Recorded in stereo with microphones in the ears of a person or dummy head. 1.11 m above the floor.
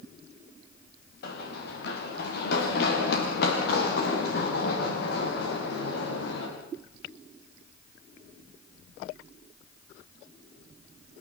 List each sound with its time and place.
1.2 s running footsteps: 60° left (ahead or behind), 6 m; by 6.5 s 65° left (ahead or behind), 8.5 m